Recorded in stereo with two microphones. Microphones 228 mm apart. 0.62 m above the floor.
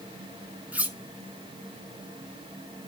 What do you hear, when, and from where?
0.7 s cutlery clinking: 5° right (ahead or behind), 1.8 m